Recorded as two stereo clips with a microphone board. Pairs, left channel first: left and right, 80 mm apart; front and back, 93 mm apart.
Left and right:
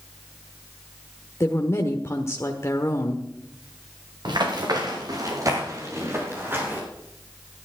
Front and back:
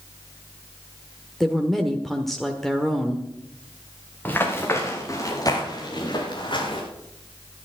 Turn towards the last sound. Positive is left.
turn(degrees=-25)